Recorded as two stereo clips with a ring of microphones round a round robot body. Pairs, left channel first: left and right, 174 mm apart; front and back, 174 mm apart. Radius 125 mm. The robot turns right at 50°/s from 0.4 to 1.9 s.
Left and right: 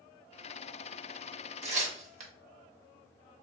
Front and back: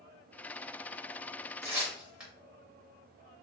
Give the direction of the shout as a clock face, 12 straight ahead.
I don't hear a shout.